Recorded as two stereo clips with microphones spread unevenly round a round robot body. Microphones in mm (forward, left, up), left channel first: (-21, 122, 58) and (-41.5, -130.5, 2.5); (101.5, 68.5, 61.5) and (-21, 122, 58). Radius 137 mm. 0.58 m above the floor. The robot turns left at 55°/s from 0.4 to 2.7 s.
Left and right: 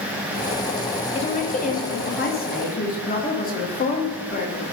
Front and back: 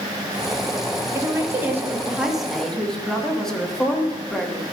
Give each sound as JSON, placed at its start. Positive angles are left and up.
{"t": 1.1, "sound": "a woman speaking", "azimuth_deg": 145, "distance_m": 1.2}